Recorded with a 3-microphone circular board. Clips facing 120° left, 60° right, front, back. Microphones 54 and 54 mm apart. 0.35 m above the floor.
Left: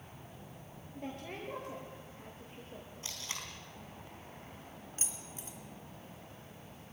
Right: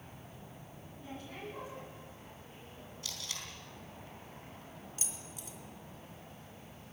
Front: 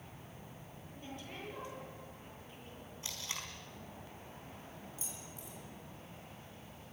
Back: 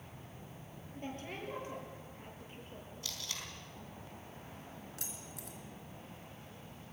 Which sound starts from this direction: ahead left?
Tape being pulled, at 3.0 s.